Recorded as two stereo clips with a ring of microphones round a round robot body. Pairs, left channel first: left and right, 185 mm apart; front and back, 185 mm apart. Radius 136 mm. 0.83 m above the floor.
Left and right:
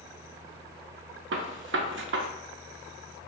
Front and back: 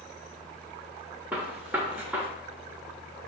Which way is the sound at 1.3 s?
95° right.